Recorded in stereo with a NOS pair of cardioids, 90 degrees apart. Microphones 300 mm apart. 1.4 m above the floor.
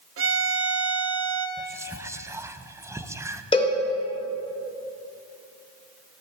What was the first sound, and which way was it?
A violin, 45° right.